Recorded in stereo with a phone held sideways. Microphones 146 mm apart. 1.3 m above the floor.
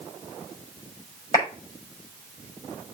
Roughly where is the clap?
Left.